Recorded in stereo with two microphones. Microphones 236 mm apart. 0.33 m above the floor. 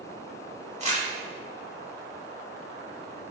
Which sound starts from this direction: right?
Crumpling, at 0.8 s.